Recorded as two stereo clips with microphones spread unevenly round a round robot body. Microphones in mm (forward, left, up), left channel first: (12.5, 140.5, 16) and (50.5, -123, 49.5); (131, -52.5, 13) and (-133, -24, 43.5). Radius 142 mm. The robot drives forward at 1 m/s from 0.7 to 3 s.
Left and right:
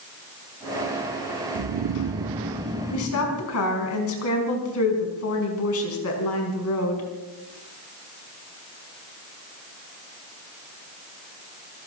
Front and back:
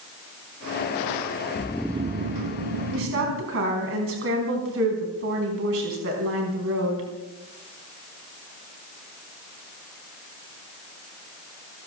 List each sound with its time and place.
1.6 s snoring: 50° right, 0.6 m; by 3.5 s 165° right, 1.3 m
2.9 s a woman speaking: 125° left, 4 m; by 7.0 s 130° left, 4 m